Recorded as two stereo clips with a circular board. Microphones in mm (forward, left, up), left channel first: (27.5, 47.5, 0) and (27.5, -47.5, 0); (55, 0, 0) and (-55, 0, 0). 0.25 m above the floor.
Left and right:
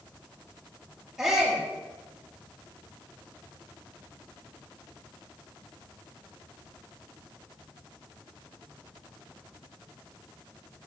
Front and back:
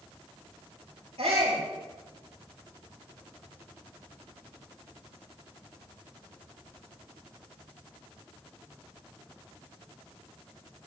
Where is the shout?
175° right, 5.5 m.